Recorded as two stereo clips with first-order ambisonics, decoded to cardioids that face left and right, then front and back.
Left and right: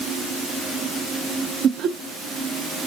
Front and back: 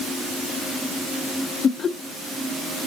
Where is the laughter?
55° right, 0.6 m.